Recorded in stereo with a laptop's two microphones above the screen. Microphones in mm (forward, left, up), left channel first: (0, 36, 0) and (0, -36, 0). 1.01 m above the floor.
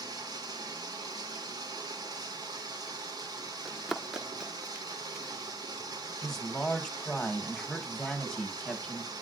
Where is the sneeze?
I don't hear a sneeze.